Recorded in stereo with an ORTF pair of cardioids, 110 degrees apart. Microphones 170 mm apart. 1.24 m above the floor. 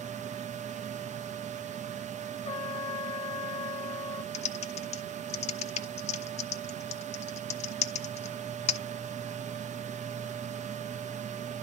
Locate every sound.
0.0 s a fan: 45° right, 0.9 m
2.5 s a trumpet: 35° left, 0.6 m
4.3 s typing on a keyboard: 40° left, 1.2 m